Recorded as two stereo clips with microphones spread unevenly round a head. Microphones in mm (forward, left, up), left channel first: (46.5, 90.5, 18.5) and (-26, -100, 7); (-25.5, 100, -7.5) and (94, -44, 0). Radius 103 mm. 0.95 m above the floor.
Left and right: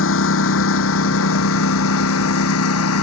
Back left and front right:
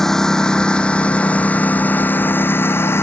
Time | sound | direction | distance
0.0 | a lawn mower | 40° left | ?